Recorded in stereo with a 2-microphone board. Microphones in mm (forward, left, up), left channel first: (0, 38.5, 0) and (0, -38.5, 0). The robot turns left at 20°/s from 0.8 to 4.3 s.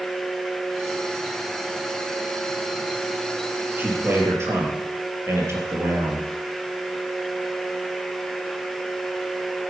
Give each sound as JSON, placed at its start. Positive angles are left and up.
{"t": 3.8, "sound": "a man speaking", "side_deg": -25, "distance_m": 3.5}